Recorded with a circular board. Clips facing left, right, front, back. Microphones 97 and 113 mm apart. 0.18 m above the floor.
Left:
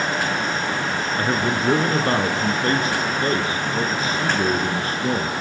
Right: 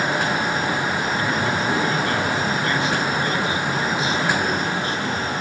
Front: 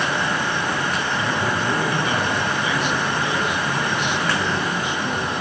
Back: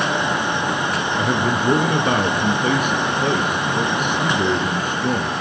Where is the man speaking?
140° left, 3 m.